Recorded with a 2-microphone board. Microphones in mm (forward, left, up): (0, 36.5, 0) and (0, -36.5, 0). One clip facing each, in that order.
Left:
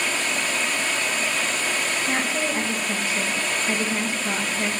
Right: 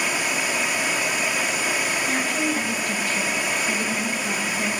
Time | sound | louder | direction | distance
0.0 | running water | right 1 dB | 10° right (ahead or behind) | 1.3 m
2.1 | a woman speaking | even | 20° left (ahead or behind) | 1.9 m